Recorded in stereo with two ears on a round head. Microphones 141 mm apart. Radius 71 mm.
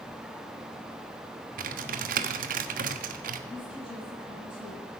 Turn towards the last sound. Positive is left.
turn(degrees=30)  # may be behind; listen again after turning